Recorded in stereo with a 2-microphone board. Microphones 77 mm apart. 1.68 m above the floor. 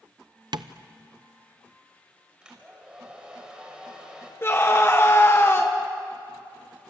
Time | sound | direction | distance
0.5 | tapping | 70° right (ahead or behind) | 0.8 m
2.4 | a hair dryer | 10° right (ahead or behind) | 5 m
4.4 | a scream | 30° left (ahead or behind) | 1.6 m